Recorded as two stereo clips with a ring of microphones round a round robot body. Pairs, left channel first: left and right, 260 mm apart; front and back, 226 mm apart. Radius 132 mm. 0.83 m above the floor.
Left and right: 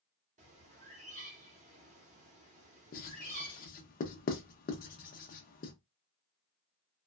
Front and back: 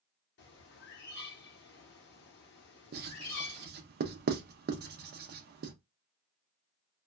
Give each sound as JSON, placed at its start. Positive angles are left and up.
{"t": 0.4, "sound": "a bird", "azimuth_deg": -30, "distance_m": 0.8}
{"t": 2.9, "sound": "writing", "azimuth_deg": 145, "distance_m": 0.5}